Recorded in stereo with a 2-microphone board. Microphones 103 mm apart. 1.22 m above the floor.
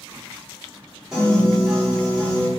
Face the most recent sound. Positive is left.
turn(degrees=-5)  # may be behind; listen again after turning